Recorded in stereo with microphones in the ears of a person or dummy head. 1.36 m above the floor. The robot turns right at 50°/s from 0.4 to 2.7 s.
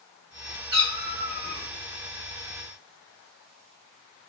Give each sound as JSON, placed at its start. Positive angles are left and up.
{"t": 0.7, "sound": "a cat meowing", "azimuth_deg": -145, "distance_m": 1.2}